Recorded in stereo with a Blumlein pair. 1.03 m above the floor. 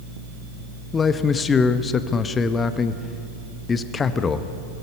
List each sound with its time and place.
0.9 s a man speaking: 20° left, 0.9 m